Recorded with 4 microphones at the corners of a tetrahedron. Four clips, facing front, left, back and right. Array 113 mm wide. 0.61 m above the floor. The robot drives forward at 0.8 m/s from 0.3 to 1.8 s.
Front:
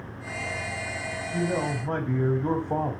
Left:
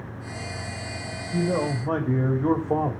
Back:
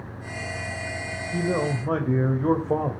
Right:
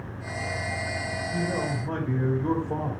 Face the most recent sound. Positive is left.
turn(degrees=140)